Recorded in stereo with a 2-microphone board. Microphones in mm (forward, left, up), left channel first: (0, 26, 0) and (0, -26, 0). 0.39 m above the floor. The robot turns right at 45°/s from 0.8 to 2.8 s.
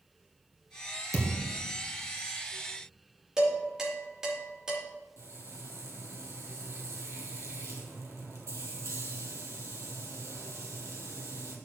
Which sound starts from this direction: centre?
Dishes clattering, at 3.4 s.